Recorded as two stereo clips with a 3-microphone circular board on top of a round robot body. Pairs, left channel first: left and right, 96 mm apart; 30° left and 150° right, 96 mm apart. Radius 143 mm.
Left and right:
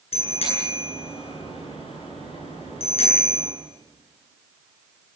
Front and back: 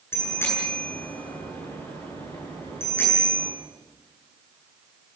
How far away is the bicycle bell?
About 10 m.